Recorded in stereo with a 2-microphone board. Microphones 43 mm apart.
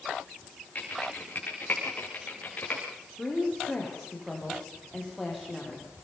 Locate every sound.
0.8 s typing on a keyboard: 40° left (ahead or behind), 8.5 m
3.2 s a woman speaking: centre (ahead or behind), 8.5 m